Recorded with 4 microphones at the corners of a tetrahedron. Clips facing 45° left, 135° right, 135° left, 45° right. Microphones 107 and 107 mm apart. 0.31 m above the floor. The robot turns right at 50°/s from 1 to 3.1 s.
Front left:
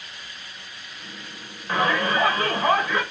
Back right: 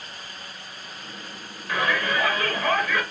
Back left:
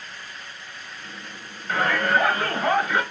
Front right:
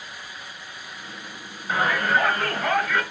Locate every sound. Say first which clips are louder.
1.7 s a shout: front left 3 dB, even; 20° left, 1.4 m; by 3.0 s 90° left, 1.4 m